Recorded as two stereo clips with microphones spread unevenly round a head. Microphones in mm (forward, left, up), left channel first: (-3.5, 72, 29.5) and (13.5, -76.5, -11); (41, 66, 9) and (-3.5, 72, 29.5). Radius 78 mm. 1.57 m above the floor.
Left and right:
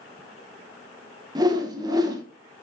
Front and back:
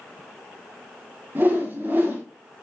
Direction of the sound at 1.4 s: 155° right.